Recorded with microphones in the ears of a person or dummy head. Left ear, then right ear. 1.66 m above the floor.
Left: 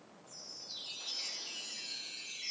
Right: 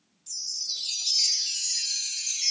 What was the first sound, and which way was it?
A chime, 80° right.